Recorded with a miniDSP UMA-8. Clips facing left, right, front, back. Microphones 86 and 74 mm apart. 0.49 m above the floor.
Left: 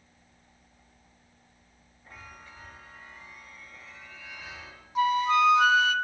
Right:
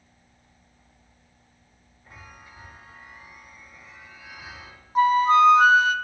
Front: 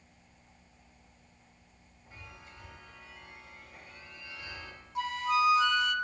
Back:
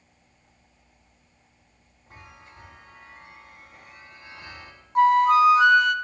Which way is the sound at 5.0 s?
140° right.